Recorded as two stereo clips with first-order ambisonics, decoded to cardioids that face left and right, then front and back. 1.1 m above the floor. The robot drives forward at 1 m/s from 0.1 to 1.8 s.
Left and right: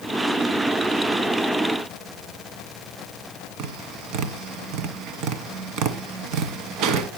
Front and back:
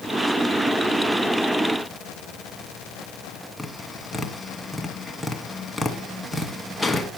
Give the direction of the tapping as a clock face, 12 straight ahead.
3 o'clock.